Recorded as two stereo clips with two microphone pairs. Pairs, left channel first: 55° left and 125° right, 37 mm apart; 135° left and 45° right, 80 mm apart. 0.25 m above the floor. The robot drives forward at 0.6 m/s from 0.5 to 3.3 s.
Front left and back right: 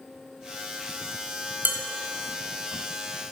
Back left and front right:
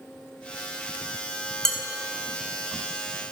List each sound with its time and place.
1.6 s dishes clattering: 140° right, 1.5 m; by 1.8 s 145° right, 1.6 m